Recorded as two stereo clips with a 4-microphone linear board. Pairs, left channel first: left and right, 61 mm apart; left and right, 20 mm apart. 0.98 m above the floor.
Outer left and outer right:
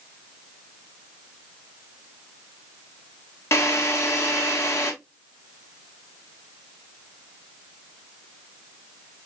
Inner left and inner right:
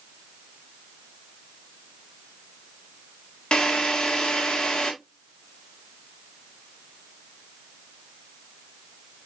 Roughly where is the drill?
Left.